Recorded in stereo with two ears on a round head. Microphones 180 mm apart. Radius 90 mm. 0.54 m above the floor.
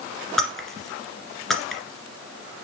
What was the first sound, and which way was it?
Breaking glass, centre (ahead or behind).